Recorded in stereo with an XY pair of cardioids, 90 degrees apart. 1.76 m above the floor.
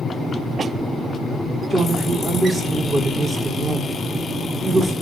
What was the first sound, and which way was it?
A woman speaking, 40° right.